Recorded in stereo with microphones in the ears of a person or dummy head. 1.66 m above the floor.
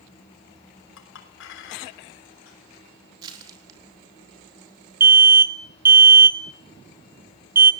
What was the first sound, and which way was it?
A clink, 70° left (ahead or behind).